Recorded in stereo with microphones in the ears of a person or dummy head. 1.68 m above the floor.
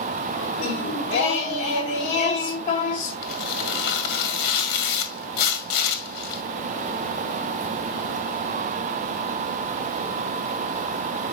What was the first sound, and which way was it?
Singing, 40° left (ahead or behind).